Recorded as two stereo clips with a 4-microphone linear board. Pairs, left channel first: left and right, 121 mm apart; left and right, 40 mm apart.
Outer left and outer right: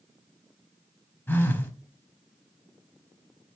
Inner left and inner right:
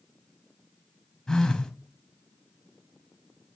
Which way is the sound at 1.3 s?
15° left (ahead or behind).